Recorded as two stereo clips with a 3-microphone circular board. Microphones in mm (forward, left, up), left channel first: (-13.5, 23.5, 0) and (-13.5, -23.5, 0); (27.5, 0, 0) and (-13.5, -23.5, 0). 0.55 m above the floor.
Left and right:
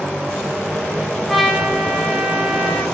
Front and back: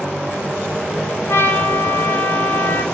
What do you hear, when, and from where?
1.3 s a trumpet: straight ahead, 3.5 m